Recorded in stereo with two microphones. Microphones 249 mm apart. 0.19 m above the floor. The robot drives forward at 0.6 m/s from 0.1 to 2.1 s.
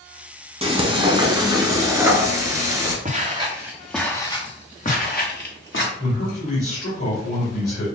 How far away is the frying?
About 0.9 m.